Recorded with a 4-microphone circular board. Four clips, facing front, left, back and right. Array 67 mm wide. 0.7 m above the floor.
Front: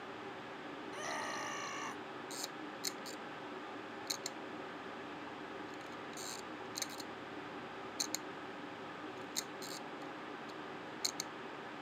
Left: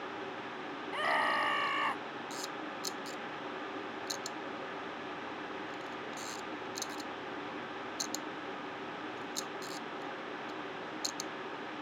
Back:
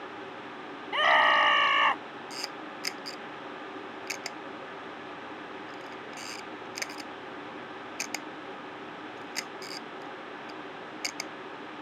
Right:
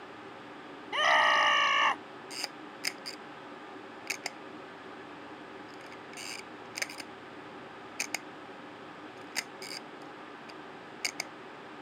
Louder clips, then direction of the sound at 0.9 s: Right 7 dB, back 21 dB; 160° right.